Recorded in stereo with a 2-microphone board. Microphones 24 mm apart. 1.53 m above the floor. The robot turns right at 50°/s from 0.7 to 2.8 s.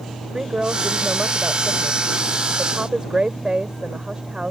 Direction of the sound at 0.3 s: 35° right (ahead or behind).